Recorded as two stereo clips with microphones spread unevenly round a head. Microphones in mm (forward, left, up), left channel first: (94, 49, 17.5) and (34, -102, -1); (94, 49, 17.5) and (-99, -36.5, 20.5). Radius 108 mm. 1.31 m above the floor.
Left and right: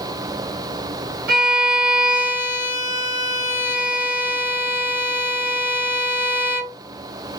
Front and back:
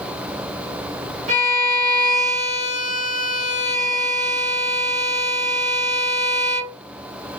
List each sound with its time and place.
1.3 s a violin: 110° right, 1.6 m